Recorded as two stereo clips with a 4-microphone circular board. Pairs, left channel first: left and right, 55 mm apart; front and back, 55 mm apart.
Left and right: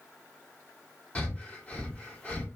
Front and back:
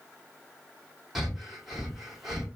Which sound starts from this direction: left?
Breathing, at 1.1 s.